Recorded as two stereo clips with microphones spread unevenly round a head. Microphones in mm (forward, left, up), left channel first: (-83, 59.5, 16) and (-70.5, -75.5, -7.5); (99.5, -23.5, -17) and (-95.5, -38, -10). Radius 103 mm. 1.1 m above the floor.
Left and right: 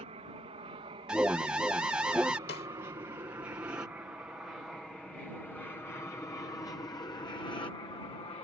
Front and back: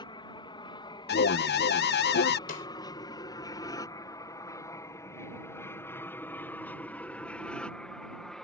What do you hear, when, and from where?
0.0 s an aircraft: 55° right; by 8.4 s 90° left
1.1 s an alarm: 10° right
2.5 s a snare drum: 60° left